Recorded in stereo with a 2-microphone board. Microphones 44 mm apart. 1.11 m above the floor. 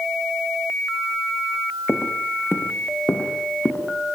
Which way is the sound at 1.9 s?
70° left (ahead or behind).